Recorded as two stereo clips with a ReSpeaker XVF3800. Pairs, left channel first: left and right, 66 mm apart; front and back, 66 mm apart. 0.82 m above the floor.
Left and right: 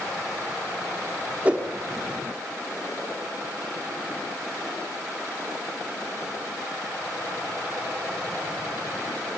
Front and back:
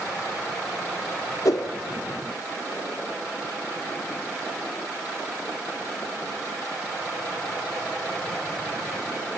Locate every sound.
1.4 s a whoosh: 20° right, 2.5 m